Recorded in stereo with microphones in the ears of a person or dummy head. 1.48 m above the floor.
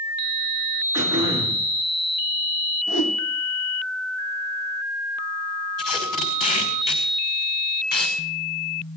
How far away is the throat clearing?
About 7.5 m.